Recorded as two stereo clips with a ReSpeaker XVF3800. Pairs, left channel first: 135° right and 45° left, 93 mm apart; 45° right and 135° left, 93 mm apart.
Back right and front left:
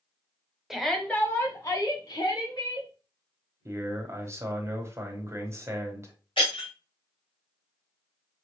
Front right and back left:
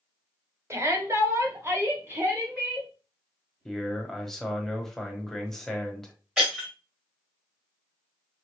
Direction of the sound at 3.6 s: 35° left.